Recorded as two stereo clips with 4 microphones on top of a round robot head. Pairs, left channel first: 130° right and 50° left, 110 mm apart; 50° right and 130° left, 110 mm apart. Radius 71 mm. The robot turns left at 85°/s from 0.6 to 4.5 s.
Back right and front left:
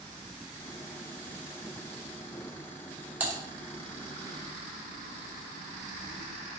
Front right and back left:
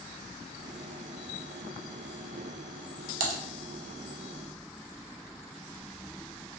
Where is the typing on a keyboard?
125° left, 0.5 m; by 3.4 s 110° left, 0.5 m.